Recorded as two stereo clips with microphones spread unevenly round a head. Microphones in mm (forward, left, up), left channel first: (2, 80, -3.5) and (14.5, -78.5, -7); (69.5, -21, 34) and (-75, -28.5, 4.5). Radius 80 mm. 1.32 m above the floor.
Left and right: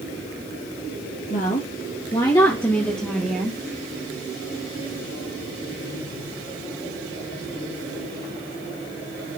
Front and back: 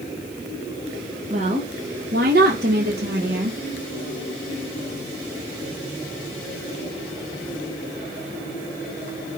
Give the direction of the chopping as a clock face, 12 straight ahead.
I don't hear chopping.